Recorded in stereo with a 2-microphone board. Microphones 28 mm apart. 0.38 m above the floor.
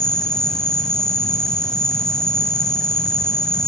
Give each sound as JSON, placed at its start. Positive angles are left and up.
{"t": 0.0, "sound": "an insect", "side_deg": 25, "distance_m": 0.8}